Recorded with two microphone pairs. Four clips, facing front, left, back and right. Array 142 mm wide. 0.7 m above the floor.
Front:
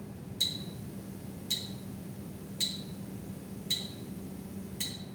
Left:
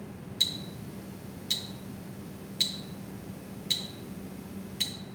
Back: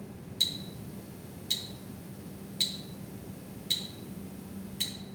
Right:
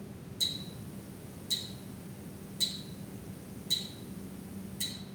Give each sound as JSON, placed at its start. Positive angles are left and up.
{"t": 0.4, "sound": "ticking", "azimuth_deg": 100, "distance_m": 0.9}